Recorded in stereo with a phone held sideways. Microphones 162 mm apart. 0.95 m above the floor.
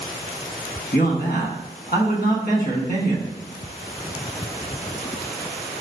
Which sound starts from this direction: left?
A man speaking, at 0.9 s.